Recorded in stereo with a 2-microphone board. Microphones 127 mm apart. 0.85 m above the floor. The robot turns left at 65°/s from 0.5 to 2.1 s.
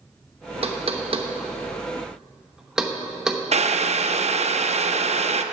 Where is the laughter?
No laughter in this recording.